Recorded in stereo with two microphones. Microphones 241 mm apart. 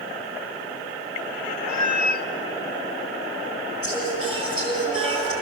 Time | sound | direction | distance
1.7 | a cat meowing | 35° right (ahead or behind) | 1.1 m
3.8 | singing | 65° right (ahead or behind) | 9 m